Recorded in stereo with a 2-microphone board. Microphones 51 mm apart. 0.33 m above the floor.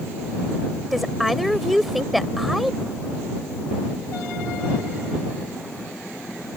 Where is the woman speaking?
Centre (ahead or behind).